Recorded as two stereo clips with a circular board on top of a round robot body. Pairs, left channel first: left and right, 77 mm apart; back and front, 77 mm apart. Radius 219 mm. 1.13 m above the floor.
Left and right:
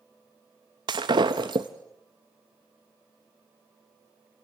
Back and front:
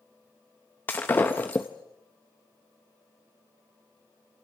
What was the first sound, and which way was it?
Breaking glass, 115° right.